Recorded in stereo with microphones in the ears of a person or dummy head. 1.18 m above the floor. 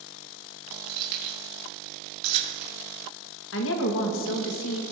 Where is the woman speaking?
65° left (ahead or behind), 1.4 m.